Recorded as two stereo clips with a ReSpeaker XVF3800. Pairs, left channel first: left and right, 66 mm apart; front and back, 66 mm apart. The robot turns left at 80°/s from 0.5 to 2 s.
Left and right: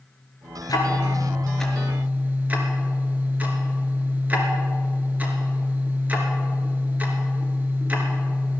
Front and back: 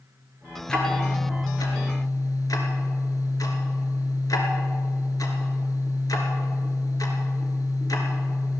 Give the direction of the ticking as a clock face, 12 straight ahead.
9 o'clock.